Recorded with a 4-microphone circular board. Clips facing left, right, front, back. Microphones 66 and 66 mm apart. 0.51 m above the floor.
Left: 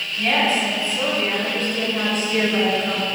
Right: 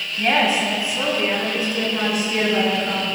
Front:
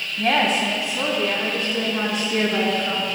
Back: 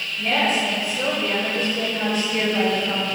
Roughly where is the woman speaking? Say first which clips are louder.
Right 1 dB, front 2 dB; ahead.